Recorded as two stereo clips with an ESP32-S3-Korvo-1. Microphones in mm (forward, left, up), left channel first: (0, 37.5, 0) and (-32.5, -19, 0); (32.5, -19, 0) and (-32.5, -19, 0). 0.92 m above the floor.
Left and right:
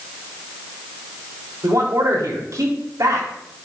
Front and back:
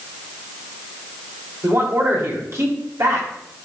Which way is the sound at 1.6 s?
145° right.